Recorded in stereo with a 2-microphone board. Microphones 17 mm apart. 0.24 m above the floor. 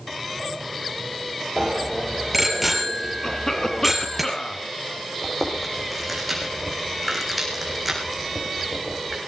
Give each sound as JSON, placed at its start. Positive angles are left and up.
{"t": 1.6, "sound": "a bicycle bell", "side_deg": -5, "distance_m": 4.0}
{"t": 3.2, "sound": "a cough", "side_deg": 30, "distance_m": 3.0}
{"t": 5.2, "sound": "chewing", "side_deg": -5, "distance_m": 5.0}